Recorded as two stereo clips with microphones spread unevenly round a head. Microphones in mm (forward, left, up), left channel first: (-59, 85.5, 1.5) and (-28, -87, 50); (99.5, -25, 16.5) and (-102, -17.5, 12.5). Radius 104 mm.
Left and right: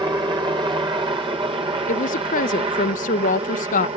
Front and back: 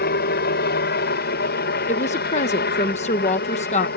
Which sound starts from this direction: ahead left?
A woman speaking, at 1.9 s.